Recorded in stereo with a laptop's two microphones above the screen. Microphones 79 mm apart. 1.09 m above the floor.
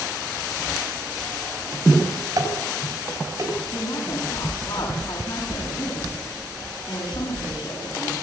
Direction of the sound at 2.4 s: 45° right (ahead or behind).